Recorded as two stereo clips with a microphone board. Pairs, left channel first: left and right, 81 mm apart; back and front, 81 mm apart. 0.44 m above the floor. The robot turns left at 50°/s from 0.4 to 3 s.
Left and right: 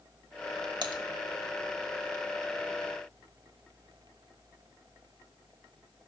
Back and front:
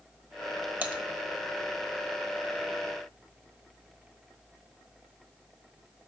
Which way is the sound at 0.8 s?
65° right.